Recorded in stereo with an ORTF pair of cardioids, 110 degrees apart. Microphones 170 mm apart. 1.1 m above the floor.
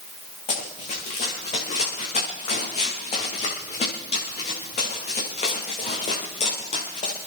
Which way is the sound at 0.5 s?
40° left.